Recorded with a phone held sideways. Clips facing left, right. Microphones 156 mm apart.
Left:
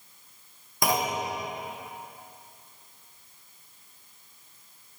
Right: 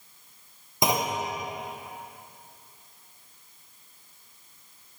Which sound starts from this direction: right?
A clunk, at 0.8 s.